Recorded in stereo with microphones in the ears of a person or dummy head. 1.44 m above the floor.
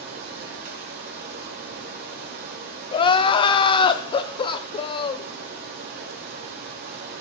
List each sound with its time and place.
0.0 s running water: 55° right (ahead or behind), 3 m
2.9 s crying: 25° left (ahead or behind), 0.6 m